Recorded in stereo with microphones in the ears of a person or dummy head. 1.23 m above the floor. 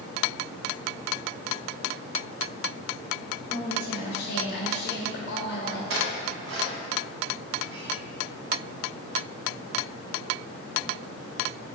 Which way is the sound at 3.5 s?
70° left (ahead or behind).